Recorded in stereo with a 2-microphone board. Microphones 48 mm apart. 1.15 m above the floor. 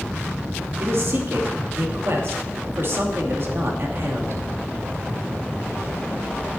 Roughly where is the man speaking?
Right.